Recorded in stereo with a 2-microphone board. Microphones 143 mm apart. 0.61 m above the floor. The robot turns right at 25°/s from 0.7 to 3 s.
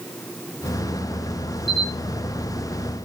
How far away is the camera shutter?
About 2.5 m.